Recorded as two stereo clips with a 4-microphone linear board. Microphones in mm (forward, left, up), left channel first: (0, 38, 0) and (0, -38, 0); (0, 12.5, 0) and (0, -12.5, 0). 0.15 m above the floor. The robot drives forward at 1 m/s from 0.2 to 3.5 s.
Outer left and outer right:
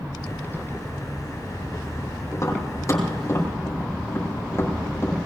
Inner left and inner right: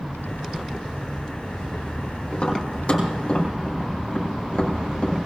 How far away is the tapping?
About 5.5 m.